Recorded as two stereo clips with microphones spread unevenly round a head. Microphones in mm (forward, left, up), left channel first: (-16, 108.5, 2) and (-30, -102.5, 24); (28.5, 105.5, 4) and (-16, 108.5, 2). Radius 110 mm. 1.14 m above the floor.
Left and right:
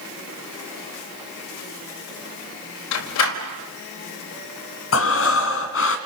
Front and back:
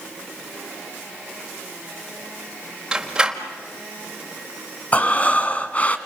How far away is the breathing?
About 2 m.